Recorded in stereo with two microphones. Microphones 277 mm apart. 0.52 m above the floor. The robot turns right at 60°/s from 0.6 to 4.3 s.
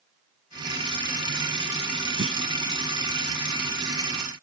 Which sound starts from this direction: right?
A clunk, at 2.2 s.